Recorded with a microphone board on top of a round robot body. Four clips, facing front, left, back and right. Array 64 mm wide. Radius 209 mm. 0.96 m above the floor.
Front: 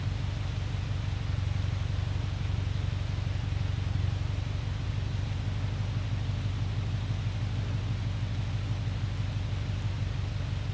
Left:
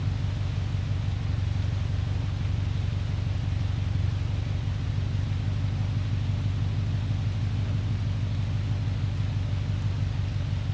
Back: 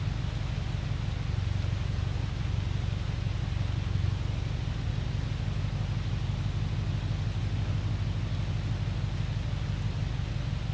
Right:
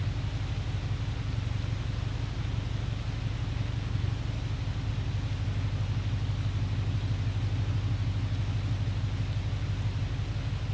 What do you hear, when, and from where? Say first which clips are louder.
0.0 s an engine running: left 3 dB, back 1 dB; 70° left, 6.5 m